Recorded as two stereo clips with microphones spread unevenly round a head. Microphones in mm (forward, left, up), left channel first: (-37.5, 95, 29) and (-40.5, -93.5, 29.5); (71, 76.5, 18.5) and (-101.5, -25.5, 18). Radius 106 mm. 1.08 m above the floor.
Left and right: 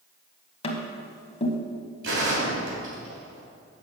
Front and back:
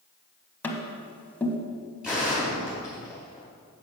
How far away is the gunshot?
About 2.5 m.